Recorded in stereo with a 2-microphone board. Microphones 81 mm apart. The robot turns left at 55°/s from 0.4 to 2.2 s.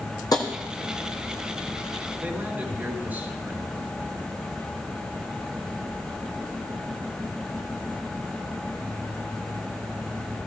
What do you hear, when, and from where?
0.3 s tapping: 55° left (ahead or behind), 2.0 m; by 0.5 s 50° left (ahead or behind), 2.0 m
2.2 s a man speaking: 20° right (ahead or behind), 2.5 m